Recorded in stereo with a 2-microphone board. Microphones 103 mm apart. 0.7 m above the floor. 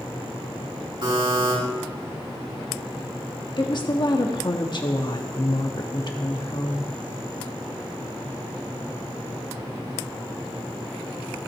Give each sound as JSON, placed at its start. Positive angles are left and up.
{"t": 1.0, "sound": "a buzzer", "side_deg": -55, "distance_m": 6.0}
{"t": 3.6, "sound": "a woman speaking", "side_deg": 45, "distance_m": 1.3}